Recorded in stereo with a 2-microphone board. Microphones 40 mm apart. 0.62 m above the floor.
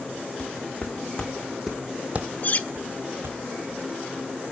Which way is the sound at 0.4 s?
30° left (ahead or behind).